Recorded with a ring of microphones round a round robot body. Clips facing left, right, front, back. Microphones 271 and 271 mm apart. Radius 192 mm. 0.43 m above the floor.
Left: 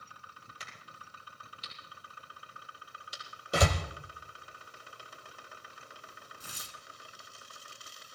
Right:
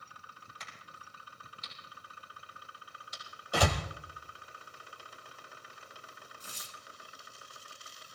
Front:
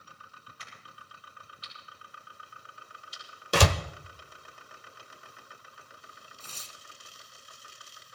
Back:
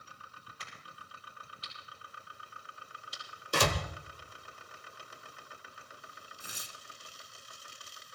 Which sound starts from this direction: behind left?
A crack, at 0.6 s.